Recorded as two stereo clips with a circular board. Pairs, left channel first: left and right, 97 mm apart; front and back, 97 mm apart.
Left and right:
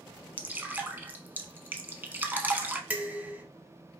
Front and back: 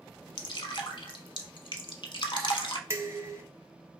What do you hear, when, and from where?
0.4 s dripping: 20° right, 0.6 m
2.9 s dishes clattering: 155° right, 0.9 m